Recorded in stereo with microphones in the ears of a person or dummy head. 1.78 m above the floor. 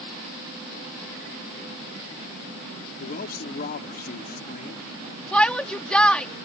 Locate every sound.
3.0 s a man speaking: 45° left (ahead or behind)
5.3 s a shout: centre (ahead or behind)